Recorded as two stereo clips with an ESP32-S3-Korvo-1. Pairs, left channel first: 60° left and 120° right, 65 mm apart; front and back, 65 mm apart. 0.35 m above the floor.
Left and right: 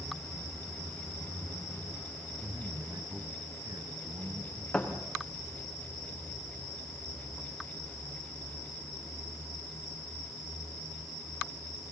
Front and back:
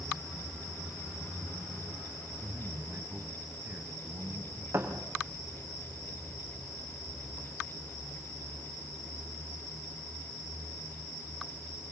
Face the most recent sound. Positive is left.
turn(degrees=130)